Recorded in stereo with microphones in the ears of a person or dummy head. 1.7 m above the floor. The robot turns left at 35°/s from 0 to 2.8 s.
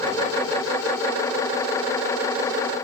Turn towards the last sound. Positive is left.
No sound to turn to.